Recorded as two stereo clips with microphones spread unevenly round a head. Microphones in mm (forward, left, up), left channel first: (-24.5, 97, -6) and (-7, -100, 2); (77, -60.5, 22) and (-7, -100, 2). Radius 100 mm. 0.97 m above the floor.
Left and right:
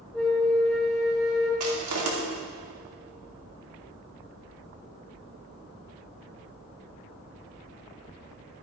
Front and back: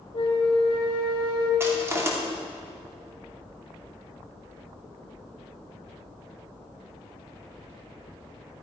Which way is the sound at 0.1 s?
5° left.